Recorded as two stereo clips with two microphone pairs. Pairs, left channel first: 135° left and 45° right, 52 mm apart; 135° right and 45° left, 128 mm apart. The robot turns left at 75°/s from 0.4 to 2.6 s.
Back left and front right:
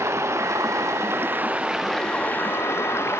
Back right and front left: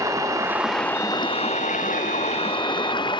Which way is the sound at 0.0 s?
20° right.